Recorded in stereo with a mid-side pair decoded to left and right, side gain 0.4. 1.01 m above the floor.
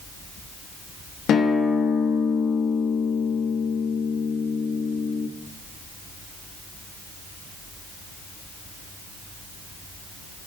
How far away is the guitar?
About 1.1 m.